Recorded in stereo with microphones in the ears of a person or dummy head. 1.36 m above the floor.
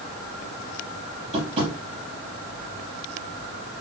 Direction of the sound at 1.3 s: 35° right (ahead or behind).